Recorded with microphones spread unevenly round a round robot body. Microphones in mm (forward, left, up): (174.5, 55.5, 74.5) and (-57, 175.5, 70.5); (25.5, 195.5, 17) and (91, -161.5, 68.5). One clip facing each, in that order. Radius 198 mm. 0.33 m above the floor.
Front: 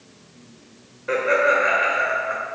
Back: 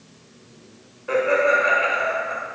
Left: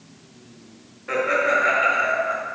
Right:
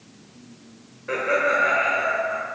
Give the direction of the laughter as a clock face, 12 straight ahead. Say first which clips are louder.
Back 1 dB, left 1 dB; 11 o'clock.